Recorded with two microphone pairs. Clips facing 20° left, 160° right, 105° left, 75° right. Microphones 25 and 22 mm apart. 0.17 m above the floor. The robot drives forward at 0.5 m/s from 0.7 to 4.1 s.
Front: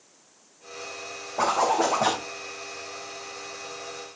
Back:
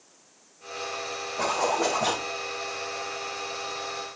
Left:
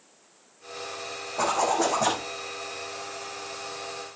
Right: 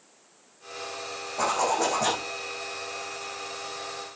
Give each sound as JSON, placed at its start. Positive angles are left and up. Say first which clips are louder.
{"t": 1.4, "sound": "a zipper", "louder": "front 3 dB, left 1 dB", "azimuth_deg": 25, "distance_m": 6.5}